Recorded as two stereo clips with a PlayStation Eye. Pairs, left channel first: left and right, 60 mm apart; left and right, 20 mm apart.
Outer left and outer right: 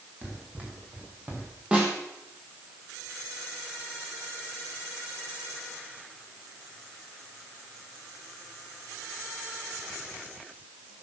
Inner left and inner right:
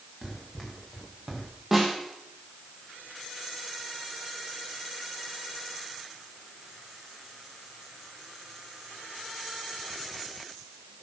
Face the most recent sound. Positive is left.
turn(degrees=-20)  # may be behind; listen again after turning